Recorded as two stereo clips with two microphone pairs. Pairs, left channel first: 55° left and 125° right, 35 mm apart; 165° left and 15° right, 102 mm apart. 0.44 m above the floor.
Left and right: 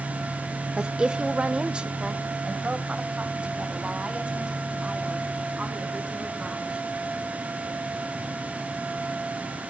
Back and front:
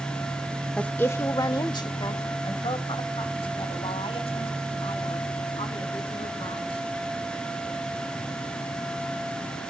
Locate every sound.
0.8 s a woman speaking: 140° right, 0.8 m; by 6.9 s straight behind, 4.5 m